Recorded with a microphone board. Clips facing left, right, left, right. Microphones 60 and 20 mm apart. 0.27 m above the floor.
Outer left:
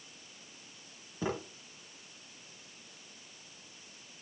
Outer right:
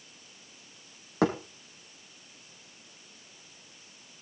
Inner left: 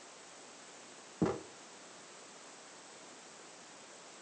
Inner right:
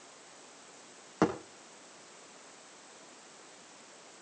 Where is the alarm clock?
No alarm clock in this recording.